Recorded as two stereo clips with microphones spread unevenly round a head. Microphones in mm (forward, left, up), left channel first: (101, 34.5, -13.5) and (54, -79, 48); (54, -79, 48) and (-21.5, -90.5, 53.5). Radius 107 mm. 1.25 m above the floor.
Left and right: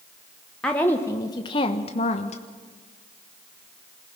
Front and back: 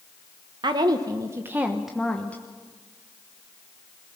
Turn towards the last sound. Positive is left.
turn(degrees=80)